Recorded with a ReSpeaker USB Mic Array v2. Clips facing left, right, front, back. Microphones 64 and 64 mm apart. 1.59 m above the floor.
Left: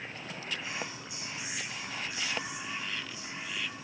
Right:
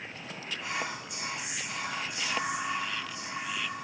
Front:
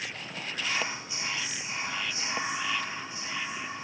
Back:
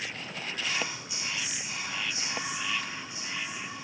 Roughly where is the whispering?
Ahead right.